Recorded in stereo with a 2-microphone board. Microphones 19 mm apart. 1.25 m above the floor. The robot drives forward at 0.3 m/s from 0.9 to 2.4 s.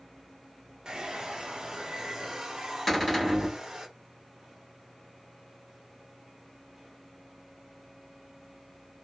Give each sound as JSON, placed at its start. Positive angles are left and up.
{"t": 0.8, "sound": "a hair dryer", "side_deg": -40, "distance_m": 0.6}
{"t": 2.9, "sound": "a cupboard door", "side_deg": 5, "distance_m": 1.4}